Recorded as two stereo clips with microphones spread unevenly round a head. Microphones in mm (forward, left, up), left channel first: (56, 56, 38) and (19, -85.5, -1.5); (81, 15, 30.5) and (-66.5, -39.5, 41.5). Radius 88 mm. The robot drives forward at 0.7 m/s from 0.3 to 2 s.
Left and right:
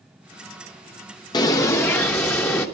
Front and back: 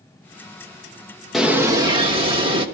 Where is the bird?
115° left, 0.7 m; by 2.6 s 145° left, 1.0 m.